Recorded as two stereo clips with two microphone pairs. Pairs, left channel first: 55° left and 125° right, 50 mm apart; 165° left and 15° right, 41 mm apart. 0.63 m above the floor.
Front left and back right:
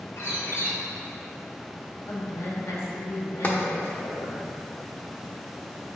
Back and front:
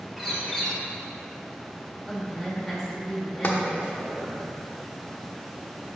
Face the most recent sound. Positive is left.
turn(degrees=115)